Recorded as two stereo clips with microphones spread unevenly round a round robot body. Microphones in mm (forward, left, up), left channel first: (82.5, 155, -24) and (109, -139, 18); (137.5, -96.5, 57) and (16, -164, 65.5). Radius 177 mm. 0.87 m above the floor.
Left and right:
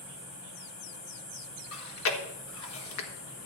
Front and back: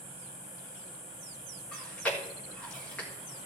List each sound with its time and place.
1.7 s chewing: 105° left, 1.5 m